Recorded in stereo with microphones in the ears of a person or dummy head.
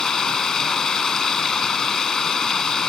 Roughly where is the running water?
Centre.